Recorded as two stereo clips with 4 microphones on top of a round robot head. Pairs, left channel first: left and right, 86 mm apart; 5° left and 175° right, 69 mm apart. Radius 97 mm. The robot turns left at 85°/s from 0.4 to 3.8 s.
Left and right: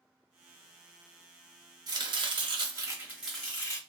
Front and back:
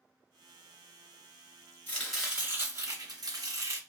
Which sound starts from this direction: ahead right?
Chopping, at 1.9 s.